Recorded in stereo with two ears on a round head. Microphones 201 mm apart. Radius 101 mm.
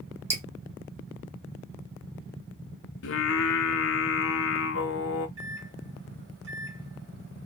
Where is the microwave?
55° right (ahead or behind), 1.6 m.